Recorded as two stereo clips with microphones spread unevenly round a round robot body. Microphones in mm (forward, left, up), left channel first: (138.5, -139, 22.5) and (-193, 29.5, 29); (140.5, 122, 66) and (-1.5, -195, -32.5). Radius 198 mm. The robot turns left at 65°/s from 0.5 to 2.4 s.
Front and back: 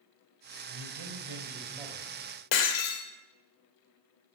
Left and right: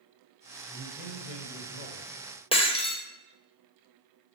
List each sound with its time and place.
0.7 s a man speaking: 140° left, 3 m; by 2.1 s 45° left, 3 m
2.5 s breaking glass: 10° right, 1.8 m